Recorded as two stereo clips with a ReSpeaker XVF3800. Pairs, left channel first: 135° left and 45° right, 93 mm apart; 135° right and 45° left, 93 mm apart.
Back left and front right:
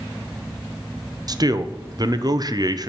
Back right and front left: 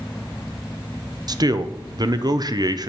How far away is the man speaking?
About 0.7 m.